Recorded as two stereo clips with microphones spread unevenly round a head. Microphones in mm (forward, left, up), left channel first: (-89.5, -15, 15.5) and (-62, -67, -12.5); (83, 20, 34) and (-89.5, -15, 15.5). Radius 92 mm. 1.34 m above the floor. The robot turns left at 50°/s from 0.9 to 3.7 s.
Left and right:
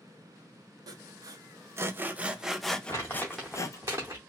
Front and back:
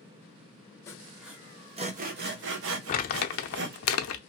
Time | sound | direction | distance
0.9 | sawing | 65° right | 0.7 m
2.9 | crumpling | 60° left | 0.5 m